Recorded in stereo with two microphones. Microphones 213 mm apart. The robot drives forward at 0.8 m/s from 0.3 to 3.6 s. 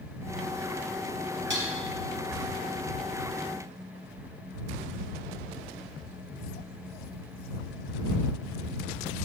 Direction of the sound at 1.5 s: 55° right (ahead or behind).